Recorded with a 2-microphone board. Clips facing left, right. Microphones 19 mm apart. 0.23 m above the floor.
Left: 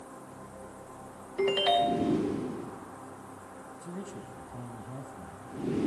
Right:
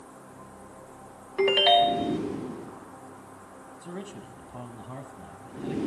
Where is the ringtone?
35° right (ahead or behind), 0.5 m.